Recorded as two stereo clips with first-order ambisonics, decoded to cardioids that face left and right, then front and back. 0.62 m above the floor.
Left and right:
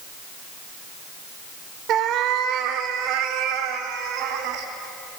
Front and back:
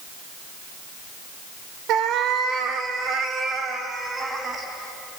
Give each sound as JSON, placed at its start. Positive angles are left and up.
{"t": 1.9, "sound": "a cat meowing", "azimuth_deg": -140, "distance_m": 0.9}